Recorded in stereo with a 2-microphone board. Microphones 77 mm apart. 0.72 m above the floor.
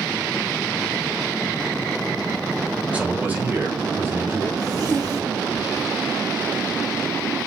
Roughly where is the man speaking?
Centre.